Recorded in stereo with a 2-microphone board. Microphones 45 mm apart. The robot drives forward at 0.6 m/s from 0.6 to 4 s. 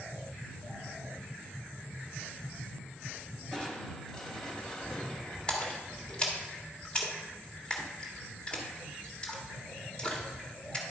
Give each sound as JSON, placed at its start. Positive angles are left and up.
{"t": 3.5, "sound": "crushing", "side_deg": 15, "distance_m": 1.6}
{"t": 5.5, "sound": "a splash", "side_deg": 20, "distance_m": 1.4}